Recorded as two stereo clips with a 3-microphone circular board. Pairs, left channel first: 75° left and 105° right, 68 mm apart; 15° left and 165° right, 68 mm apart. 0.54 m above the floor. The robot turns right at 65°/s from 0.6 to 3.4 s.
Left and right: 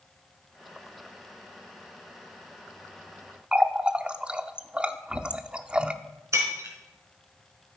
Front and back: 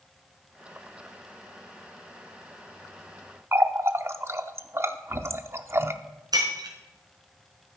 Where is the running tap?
170° right, 0.6 m.